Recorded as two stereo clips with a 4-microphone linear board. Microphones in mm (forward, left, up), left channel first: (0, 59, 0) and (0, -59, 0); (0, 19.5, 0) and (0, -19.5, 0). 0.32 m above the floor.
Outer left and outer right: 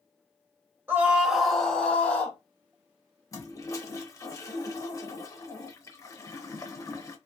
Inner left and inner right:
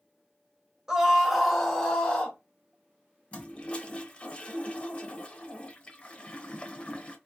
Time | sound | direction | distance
0.9 | a scream | 20° right (ahead or behind) | 1.1 m
3.3 | a toilet flushing | 30° left (ahead or behind) | 0.7 m